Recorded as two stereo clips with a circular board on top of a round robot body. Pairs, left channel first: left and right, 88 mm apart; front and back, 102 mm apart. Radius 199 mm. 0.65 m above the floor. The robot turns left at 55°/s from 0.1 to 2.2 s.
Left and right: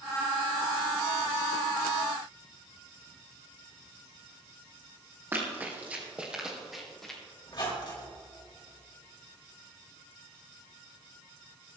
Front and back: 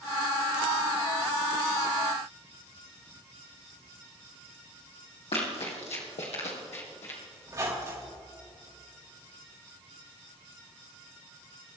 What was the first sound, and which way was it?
Running footsteps, 25° right.